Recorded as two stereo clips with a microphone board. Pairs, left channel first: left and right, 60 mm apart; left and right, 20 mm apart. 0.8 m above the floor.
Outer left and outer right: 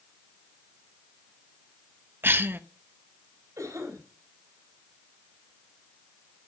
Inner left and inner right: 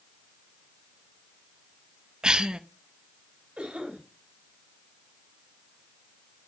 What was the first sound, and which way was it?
A cough, 35° right (ahead or behind).